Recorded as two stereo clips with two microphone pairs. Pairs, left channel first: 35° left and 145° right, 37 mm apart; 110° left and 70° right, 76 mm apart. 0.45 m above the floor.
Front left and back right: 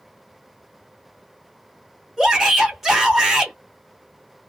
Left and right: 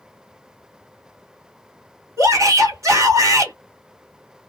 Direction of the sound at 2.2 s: 70° right.